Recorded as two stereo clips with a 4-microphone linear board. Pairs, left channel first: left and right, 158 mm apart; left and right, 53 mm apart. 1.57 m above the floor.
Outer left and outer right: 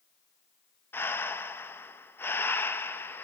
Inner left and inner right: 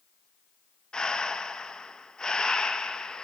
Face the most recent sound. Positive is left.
turn(degrees=15)  # may be behind; listen again after turning